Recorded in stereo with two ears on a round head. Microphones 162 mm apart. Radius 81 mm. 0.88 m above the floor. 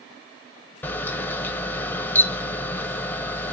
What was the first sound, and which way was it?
A camera shutter, 10° left (ahead or behind).